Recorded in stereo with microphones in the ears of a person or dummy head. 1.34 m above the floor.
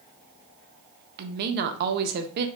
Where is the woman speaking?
55° right (ahead or behind), 0.6 m.